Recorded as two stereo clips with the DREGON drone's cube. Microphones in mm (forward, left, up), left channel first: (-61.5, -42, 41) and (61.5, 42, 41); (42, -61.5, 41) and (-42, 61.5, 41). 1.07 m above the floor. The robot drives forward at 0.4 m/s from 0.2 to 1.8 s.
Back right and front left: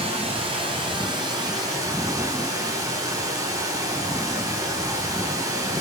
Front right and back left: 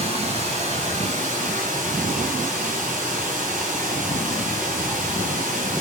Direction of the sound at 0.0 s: 85° left.